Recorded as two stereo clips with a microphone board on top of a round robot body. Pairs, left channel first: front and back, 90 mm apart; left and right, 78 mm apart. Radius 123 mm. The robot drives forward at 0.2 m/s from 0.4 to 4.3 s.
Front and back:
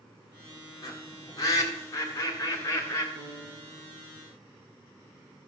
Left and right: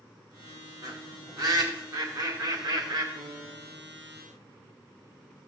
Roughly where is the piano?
Behind right.